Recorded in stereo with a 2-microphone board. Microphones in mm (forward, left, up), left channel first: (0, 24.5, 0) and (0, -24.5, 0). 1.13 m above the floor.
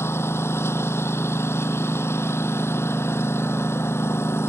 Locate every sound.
0.0 s a lawn mower: 65° left (ahead or behind)